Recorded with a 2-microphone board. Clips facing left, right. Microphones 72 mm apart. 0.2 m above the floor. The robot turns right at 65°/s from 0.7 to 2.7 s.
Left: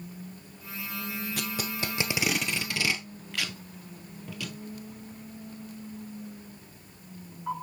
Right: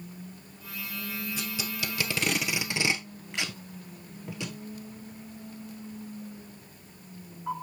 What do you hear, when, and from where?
1.4 s tape being pulled: 65° left (ahead or behind), 1.1 m; by 4.5 s 25° right (ahead or behind), 1.1 m